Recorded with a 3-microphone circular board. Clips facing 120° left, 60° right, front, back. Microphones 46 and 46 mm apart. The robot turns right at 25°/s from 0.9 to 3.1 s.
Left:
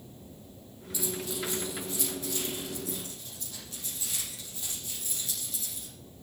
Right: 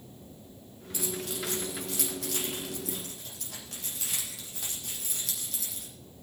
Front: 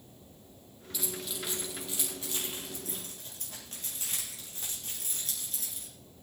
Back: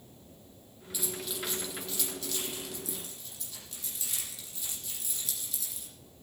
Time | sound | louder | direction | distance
0.9 | keys jangling | even, back 1 dB | 95° right | 6.5 m